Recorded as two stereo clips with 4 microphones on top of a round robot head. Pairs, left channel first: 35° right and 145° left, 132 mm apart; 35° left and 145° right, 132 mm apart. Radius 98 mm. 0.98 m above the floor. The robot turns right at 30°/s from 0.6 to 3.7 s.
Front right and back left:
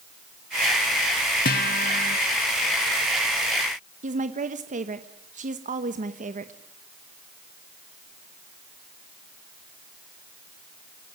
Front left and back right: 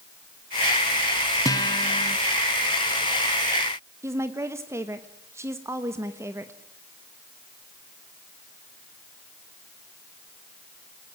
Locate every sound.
1.4 s a guitar: 30° right, 1.4 m; by 2.2 s 5° right, 1.4 m
4.0 s a woman speaking: 150° left, 1.3 m